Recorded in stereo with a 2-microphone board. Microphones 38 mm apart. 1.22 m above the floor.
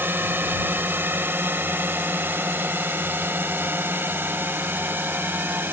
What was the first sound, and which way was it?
A drone, 80° right.